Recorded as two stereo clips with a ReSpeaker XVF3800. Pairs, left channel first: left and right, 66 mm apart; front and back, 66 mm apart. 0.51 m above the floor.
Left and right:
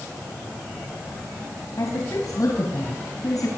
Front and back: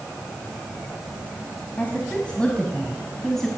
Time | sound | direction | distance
1.8 | a woman speaking | 65° left | 4 m